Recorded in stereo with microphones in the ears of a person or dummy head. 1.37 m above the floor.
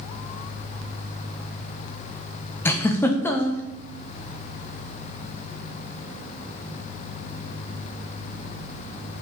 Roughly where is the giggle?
Centre.